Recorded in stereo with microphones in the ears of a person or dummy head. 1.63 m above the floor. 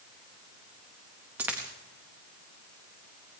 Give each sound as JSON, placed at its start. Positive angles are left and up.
{"t": 1.4, "sound": "a dropped coin", "side_deg": -10, "distance_m": 1.1}